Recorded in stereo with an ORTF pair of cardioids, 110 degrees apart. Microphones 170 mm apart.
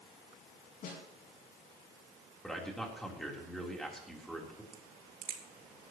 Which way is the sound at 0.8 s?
60° left.